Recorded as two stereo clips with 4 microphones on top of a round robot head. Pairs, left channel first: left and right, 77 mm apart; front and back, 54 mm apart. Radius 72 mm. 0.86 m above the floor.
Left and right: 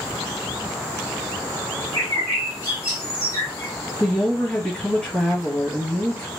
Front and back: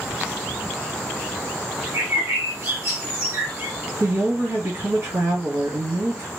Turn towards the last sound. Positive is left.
turn(degrees=170)